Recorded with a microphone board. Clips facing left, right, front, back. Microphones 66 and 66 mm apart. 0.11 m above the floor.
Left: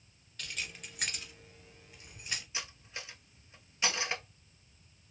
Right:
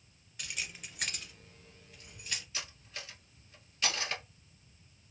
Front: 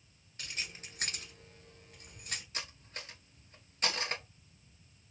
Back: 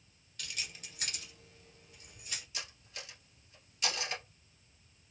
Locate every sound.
0.4 s keys jangling: 25° right, 1.1 m; by 2.4 s 25° left, 1.8 m
2.5 s cutlery clinking: 25° left, 1.0 m